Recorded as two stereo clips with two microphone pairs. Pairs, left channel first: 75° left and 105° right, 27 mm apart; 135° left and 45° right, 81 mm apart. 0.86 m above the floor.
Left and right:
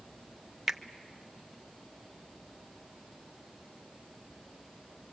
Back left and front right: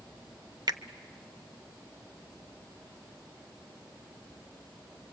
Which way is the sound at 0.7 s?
20° right.